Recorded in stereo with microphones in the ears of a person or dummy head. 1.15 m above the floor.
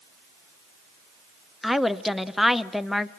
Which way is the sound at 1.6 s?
Centre (ahead or behind).